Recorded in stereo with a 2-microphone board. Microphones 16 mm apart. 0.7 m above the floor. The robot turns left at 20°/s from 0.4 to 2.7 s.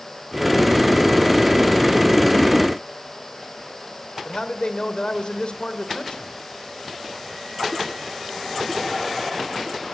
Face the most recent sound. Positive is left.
turn(degrees=70)  # may be behind; listen again after turning